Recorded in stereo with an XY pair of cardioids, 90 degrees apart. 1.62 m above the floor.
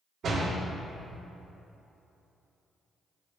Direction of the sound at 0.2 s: 70° right.